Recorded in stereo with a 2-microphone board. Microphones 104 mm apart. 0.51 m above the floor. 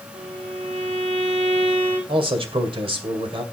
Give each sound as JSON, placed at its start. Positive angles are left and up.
{"t": 0.1, "sound": "a violin", "side_deg": -85, "distance_m": 5.5}
{"t": 2.1, "sound": "a man speaking", "side_deg": -60, "distance_m": 2.0}